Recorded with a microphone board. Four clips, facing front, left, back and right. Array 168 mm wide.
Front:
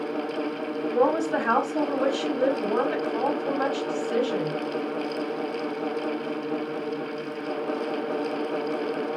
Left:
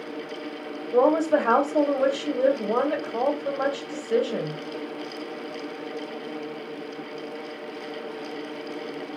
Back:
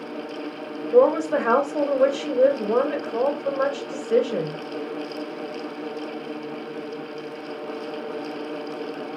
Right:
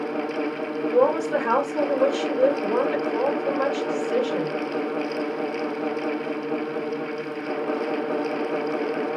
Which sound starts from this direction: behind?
A woman speaking, at 0.9 s.